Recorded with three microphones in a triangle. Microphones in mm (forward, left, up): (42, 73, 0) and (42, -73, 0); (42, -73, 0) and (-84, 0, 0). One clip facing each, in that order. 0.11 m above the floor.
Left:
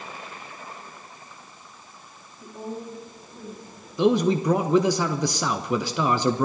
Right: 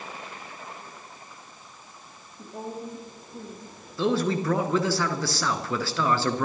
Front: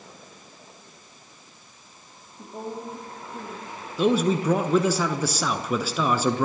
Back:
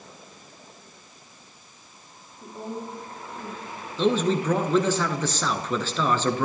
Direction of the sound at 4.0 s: 40° left.